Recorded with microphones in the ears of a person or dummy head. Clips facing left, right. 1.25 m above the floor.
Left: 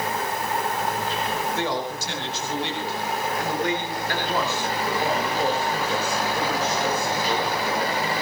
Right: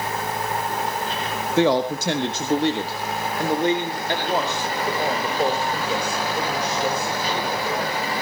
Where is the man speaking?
70° right (ahead or behind), 1.5 m; by 8.1 s 5° right (ahead or behind), 6 m.